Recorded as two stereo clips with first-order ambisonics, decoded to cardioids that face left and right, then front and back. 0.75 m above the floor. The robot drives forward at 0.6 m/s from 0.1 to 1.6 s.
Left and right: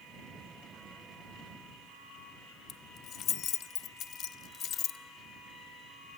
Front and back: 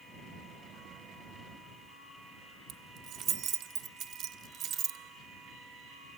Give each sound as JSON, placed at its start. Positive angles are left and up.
{"t": 2.7, "sound": "keys jangling", "azimuth_deg": 140, "distance_m": 0.6}